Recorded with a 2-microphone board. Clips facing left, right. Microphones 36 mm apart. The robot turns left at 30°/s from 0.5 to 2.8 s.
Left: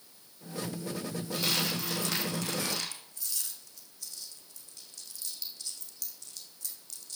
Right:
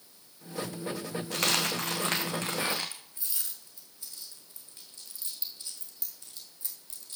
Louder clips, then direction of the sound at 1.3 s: Right 3 dB; 70° right (ahead or behind).